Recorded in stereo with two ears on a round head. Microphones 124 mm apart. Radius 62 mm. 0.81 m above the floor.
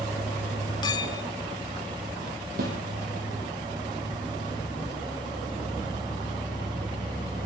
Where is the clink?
30° left (ahead or behind), 1.7 m.